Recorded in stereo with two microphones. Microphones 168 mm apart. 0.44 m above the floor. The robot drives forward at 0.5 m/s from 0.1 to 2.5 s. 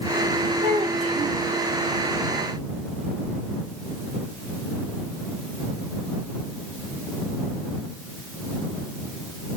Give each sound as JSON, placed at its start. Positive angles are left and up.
{"t": 0.6, "sound": "a child speaking", "side_deg": -45, "distance_m": 1.2}